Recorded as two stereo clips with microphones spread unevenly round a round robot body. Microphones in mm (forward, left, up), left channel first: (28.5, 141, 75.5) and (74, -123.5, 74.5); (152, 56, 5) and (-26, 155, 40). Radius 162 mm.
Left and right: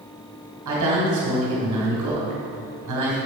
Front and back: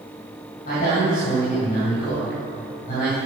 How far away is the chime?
No chime in this recording.